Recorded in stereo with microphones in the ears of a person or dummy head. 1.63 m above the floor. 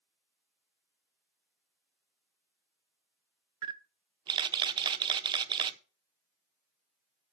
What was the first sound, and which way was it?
A camera shutter, 30° right (ahead or behind).